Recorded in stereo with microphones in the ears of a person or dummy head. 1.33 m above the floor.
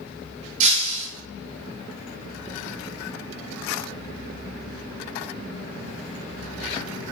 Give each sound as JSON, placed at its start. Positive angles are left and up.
{"t": 0.6, "sound": "breaking glass", "side_deg": -40, "distance_m": 1.7}